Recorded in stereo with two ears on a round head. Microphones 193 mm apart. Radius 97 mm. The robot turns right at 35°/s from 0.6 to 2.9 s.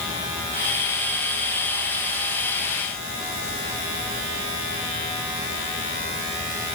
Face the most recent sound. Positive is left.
No sound to turn to.